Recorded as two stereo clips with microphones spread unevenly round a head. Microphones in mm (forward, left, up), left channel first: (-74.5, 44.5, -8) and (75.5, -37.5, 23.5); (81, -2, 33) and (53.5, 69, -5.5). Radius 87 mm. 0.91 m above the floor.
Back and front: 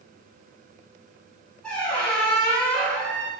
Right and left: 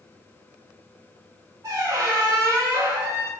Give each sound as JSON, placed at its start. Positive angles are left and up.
{"t": 1.6, "sound": "a squeak", "azimuth_deg": 50, "distance_m": 0.7}